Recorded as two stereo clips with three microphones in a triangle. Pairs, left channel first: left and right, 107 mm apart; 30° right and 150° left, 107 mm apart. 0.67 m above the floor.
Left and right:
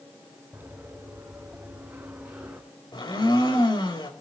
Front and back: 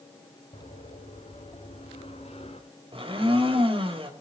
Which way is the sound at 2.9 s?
130° left.